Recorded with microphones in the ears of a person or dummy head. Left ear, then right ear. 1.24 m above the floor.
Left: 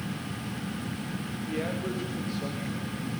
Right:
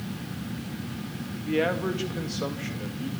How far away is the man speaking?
About 2 m.